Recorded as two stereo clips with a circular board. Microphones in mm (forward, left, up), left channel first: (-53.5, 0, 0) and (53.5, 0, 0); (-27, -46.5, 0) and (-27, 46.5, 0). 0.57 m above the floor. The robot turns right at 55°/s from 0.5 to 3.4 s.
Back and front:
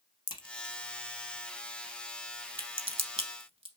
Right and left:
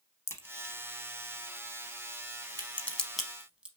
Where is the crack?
150° right, 0.7 m; by 3.7 s 10° left, 0.7 m.